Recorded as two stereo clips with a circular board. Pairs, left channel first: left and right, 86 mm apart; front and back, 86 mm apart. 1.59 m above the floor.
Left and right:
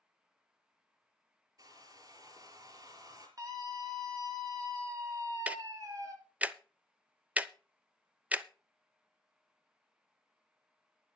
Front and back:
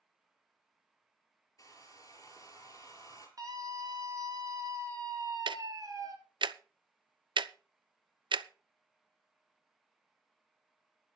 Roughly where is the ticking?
Behind.